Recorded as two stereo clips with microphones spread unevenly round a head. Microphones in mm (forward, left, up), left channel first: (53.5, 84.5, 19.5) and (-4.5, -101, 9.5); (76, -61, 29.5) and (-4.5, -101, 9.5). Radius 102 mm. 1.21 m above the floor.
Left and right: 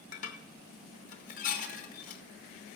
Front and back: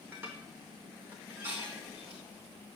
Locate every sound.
0.1 s dishes clattering: 120° left, 0.7 m